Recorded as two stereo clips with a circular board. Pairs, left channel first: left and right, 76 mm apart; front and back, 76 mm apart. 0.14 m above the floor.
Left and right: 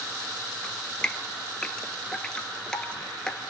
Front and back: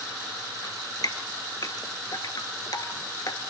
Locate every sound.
0.6 s dripping: 15° left, 1.4 m